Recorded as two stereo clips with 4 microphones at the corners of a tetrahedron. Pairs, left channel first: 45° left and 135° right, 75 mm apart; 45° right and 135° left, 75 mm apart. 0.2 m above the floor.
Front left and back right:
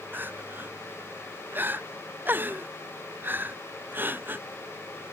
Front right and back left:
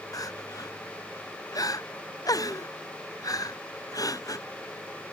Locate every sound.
0.1 s crying: 75° right